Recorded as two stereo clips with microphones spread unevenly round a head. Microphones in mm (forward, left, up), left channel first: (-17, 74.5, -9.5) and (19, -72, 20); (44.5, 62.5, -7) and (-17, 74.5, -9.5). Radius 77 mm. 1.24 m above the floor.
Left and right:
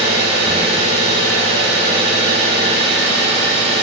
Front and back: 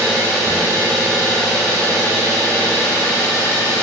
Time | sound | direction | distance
0.0 | an engine running | 60° right | 2 m